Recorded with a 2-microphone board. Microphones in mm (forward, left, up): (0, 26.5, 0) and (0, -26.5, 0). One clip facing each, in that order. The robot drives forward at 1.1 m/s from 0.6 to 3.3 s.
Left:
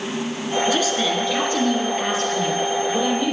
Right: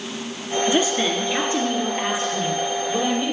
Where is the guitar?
No guitar in this recording.